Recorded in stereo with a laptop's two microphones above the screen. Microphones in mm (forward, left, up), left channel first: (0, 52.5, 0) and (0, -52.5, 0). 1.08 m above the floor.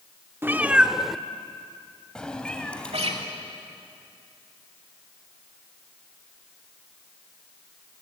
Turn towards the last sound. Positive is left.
turn(degrees=-70)  # may be behind; listen again after turning